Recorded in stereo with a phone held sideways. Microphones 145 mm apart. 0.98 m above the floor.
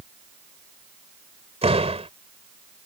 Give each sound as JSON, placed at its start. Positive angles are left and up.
{"t": 1.6, "sound": "a door slam", "side_deg": -45}